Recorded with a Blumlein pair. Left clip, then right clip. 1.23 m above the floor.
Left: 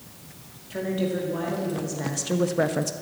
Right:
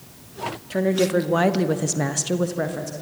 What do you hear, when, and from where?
0.7 s a woman speaking: 70° right, 2 m; by 2.9 s 25° left, 1.2 m